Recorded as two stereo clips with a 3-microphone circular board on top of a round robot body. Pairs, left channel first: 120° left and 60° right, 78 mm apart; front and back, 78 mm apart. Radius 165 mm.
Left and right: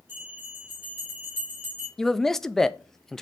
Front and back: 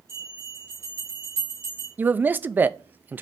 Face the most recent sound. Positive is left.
turn(degrees=-165)